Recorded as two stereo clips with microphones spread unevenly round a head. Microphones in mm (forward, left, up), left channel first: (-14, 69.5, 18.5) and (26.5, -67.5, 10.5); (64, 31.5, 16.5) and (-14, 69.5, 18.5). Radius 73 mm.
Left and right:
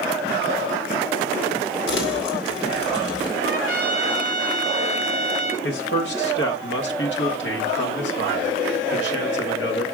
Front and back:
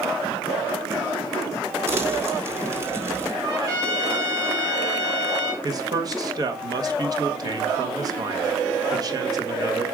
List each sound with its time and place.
1.9 s crumpling: 95° left, 2 m
3.4 s a trumpet: 110° left, 3 m
5.6 s a man speaking: 110° left, 1.4 m